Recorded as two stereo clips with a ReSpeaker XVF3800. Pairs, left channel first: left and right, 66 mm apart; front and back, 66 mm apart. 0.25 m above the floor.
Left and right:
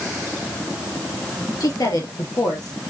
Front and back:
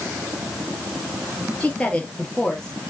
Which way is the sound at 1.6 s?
70° left.